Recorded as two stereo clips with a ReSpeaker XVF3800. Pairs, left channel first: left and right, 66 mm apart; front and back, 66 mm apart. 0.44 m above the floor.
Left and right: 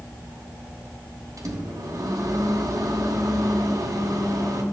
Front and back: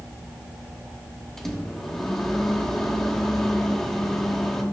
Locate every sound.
1.4 s a microwave: 85° right, 0.9 m